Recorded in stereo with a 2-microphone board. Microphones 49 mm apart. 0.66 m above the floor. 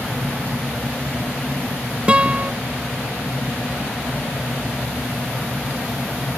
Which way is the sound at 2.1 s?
20° right (ahead or behind).